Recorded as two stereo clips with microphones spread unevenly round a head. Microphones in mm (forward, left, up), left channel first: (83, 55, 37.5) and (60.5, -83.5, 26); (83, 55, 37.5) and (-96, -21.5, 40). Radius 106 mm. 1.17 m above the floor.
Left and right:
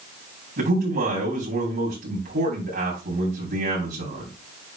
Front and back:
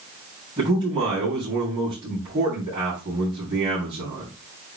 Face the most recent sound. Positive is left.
turn(degrees=-90)